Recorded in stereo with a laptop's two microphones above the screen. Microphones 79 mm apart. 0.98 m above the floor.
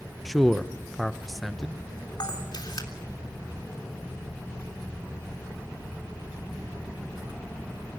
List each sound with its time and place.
0.2 s a man speaking: centre (ahead or behind), 0.5 m
2.2 s a camera shutter: 65° left (ahead or behind), 3.5 m